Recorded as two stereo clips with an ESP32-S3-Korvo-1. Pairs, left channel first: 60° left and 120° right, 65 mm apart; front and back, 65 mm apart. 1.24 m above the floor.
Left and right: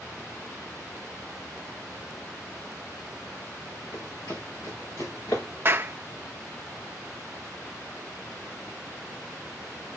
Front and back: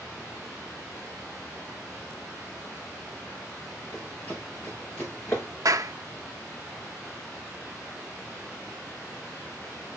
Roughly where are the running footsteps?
Ahead left.